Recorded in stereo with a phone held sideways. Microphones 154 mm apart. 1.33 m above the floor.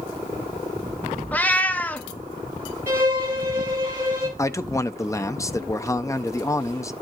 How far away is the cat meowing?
About 0.6 m.